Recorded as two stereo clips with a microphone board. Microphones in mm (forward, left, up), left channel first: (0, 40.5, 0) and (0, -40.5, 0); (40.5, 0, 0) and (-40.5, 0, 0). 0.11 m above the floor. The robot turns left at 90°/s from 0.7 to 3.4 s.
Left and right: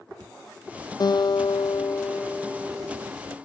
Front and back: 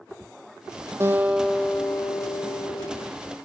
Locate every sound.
1.0 s a guitar: 125° left, 0.7 m; by 3.1 s 65° right, 0.7 m